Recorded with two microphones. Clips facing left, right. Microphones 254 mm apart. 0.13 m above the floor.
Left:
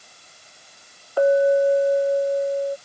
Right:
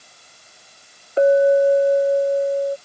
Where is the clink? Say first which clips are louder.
Right 3 dB; 20° right (ahead or behind).